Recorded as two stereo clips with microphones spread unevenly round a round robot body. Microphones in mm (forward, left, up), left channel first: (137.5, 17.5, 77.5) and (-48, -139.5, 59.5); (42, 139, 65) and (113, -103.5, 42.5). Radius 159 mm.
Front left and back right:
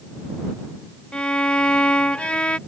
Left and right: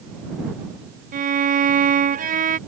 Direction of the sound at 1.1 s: 50° right.